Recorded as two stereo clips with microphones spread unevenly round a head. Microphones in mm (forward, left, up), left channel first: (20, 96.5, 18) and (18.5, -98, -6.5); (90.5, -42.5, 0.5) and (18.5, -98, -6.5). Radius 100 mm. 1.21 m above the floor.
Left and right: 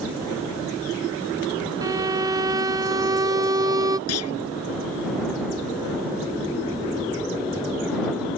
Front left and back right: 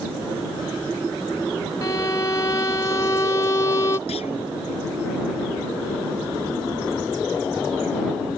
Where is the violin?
20° right.